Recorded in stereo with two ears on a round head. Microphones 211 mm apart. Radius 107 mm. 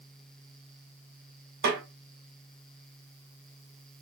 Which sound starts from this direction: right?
A snare drum, at 1.6 s.